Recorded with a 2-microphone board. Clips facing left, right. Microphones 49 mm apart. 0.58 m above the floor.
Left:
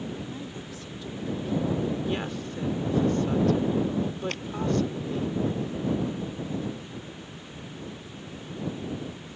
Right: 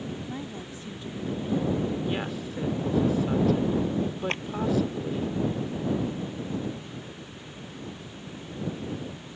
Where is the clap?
30° right (ahead or behind).